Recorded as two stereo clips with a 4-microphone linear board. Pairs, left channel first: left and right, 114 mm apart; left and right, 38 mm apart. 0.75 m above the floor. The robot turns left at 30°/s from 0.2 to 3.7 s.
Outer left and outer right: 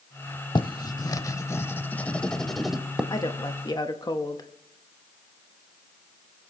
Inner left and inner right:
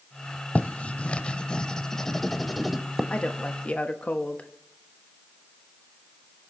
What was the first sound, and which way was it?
Writing, 40° left (ahead or behind).